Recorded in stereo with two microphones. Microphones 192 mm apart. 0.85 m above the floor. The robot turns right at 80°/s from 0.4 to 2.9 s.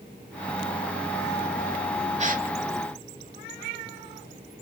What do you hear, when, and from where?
2.2 s a gasp: 35° right (ahead or behind), 1.2 m; by 2.5 s 55° right (ahead or behind), 1.2 m